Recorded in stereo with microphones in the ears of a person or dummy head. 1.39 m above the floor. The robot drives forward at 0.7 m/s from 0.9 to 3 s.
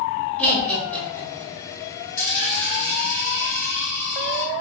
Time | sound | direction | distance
0.4 | laughter | 5° left (ahead or behind) | 1.5 m
2.2 | a dropped coin | 40° left (ahead or behind) | 1.1 m